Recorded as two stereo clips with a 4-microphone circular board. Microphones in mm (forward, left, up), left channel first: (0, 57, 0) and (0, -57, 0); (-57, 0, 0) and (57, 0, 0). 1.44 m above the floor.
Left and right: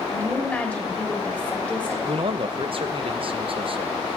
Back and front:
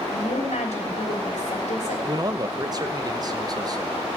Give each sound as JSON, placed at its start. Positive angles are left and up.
{"t": 0.1, "sound": "a woman speaking", "azimuth_deg": 165, "distance_m": 3.0}
{"t": 2.1, "sound": "a man speaking", "azimuth_deg": -55, "distance_m": 1.0}